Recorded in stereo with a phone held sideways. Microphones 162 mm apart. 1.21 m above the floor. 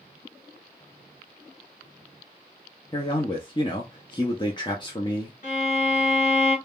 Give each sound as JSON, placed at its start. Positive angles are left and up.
{"t": 2.9, "sound": "a man speaking", "side_deg": 30, "distance_m": 0.6}
{"t": 5.4, "sound": "a violin", "side_deg": 55, "distance_m": 1.7}